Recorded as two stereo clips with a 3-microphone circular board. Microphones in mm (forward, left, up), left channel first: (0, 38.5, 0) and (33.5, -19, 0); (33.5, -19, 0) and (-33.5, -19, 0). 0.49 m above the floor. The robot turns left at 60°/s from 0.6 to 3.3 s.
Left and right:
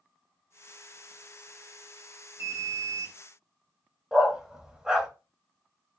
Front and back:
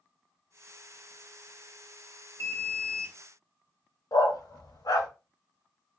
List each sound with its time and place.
2.4 s an alarm: 30° right, 0.9 m; by 3.2 s 75° right, 0.9 m
4.1 s a dog barking: 20° left, 0.7 m